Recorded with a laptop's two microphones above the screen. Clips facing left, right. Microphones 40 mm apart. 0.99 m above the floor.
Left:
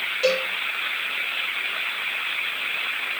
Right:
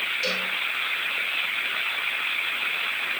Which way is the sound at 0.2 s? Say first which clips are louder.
Left 5 dB; 40° left (ahead or behind).